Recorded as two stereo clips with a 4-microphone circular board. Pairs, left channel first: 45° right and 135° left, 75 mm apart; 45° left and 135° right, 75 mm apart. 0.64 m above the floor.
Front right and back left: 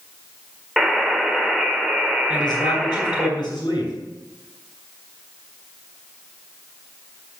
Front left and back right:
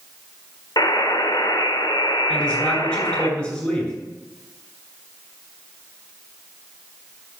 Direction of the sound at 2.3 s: 35° right.